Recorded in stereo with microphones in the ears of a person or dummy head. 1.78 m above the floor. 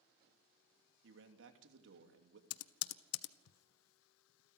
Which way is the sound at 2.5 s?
90° left.